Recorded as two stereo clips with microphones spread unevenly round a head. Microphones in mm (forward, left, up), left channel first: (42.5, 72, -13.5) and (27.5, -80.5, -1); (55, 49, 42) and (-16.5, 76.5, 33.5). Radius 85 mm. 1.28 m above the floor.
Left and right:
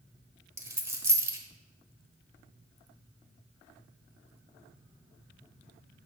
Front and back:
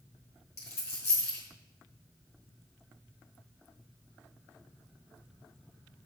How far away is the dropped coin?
About 1.2 m.